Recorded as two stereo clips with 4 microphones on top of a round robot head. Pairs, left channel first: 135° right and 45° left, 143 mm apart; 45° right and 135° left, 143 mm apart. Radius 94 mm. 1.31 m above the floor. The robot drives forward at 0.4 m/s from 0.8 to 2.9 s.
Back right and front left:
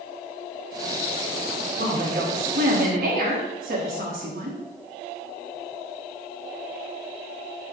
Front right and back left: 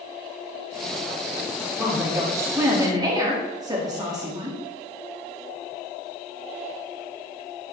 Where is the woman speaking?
60° left, 2.5 m; by 4.6 s 70° left, 2.5 m.